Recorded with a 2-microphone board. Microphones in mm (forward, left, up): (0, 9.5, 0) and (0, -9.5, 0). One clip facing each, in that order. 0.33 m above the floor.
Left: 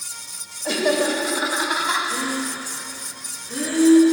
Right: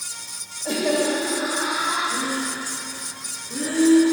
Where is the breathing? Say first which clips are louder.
Even; 35° left (ahead or behind), 3 m.